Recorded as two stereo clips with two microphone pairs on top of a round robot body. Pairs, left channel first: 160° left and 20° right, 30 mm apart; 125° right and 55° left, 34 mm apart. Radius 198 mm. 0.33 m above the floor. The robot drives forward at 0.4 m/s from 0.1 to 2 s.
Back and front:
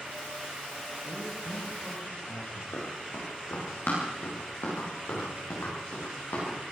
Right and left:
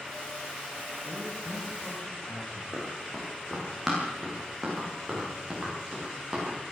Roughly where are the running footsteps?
Behind left.